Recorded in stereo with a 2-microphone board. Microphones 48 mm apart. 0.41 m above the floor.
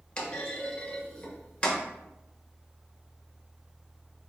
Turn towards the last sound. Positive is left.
turn(degrees=20)  # may be behind; listen again after turning